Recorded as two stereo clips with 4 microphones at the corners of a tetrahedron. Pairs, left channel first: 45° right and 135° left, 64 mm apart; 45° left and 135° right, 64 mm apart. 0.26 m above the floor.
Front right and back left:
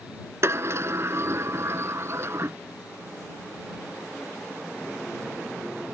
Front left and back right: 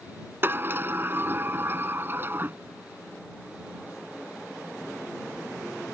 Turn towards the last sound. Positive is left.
turn(degrees=175)